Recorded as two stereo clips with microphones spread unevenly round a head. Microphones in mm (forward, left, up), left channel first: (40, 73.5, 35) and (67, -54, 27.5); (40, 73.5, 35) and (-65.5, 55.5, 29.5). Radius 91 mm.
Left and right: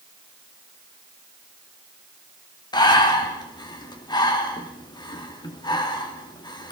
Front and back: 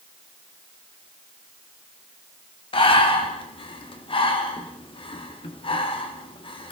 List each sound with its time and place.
2.7 s breathing: 45° left, 3 m